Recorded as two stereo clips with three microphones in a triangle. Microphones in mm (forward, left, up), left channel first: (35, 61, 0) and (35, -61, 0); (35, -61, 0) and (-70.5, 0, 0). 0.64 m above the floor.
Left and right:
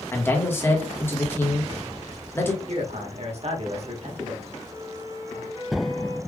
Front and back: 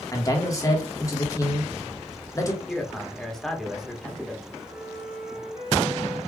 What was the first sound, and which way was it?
A man speaking, 25° left.